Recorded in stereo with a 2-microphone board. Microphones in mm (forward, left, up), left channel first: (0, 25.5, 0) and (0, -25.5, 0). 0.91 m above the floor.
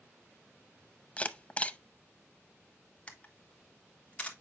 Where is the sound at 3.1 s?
25° left (ahead or behind), 1.2 m.